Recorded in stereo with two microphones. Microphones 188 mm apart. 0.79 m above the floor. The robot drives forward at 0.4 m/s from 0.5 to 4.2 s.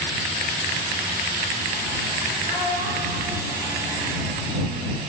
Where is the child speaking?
50° left (ahead or behind), 3 m; by 4.8 s 40° left (ahead or behind), 3.5 m.